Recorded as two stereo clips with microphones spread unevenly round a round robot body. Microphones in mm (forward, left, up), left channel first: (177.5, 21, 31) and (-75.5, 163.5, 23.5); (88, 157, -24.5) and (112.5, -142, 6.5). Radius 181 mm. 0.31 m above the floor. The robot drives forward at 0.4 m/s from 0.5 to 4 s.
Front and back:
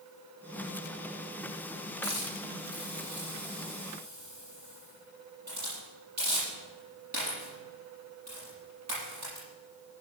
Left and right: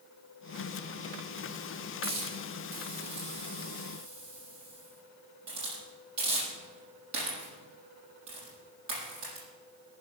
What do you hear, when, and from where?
2.0 s a hiss: 140° right, 6.5 m